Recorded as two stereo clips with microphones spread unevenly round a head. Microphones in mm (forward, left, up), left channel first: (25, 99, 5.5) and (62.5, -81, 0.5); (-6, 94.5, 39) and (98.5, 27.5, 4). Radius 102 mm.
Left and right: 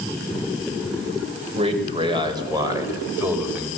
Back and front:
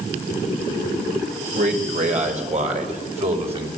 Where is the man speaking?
20° right, 5.5 m; by 3.7 s 5° left, 5.5 m.